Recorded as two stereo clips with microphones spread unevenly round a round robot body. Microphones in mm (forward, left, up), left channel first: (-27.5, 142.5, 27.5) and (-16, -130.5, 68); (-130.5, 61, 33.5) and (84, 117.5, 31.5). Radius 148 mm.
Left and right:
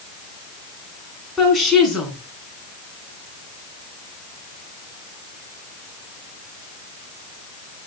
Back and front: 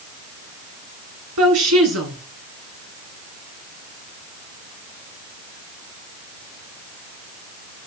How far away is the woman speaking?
About 6 m.